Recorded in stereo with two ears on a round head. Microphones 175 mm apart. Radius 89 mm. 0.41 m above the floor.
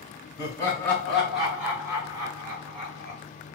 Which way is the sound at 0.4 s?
20° left (ahead or behind).